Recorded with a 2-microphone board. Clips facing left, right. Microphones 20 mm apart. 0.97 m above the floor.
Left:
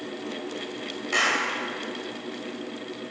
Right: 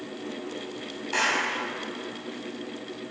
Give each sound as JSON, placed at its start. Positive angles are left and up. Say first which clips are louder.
{"t": 1.1, "sound": "a clap", "louder": "left 2 dB", "side_deg": 65, "distance_m": 4.5}